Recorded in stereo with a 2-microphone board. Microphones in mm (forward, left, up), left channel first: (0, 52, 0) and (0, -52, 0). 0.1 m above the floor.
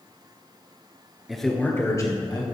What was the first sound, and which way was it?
A man speaking, 5° right (ahead or behind).